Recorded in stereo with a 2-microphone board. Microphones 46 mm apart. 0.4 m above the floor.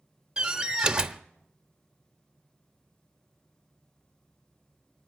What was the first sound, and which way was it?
A door slam, 20° right (ahead or behind).